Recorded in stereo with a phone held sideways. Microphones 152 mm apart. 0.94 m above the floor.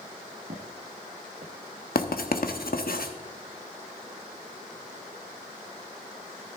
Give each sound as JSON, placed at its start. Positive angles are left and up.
{"t": 0.5, "sound": "footsteps", "side_deg": -60, "distance_m": 1.9}
{"t": 1.9, "sound": "writing", "side_deg": 75, "distance_m": 1.1}